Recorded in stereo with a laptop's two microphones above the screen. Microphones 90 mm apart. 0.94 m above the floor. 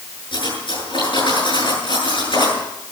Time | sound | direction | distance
0.3 | cutlery clinking | 65° left (ahead or behind) | 9 m